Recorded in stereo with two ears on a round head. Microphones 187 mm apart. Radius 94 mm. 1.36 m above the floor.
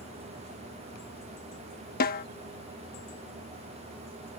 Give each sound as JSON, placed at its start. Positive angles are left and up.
{"t": 2.0, "sound": "a snare drum", "side_deg": 45}